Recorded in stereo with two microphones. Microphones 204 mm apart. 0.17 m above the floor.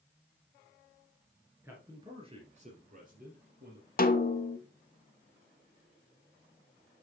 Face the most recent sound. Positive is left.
turn(degrees=45)  # may be behind; listen again after turning